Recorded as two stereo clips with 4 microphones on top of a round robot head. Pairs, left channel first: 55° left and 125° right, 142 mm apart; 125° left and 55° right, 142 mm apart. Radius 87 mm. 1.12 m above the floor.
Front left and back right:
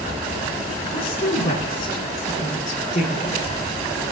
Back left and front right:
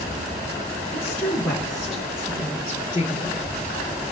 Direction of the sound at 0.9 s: 50° left.